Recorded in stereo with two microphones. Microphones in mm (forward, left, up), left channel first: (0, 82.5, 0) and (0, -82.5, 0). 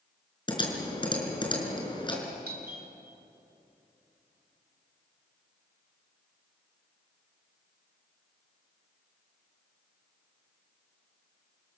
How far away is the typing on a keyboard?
About 5 m.